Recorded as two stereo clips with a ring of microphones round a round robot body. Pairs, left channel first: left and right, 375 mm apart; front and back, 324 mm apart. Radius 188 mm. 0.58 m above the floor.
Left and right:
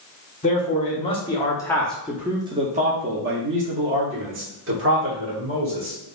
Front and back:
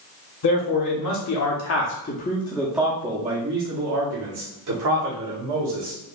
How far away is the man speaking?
About 1.2 m.